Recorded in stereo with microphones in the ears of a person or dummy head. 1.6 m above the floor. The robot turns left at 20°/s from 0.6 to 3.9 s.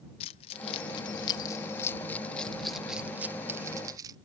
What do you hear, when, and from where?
0.2 s keys jangling: 35° left (ahead or behind); by 4.2 s 20° right (ahead or behind)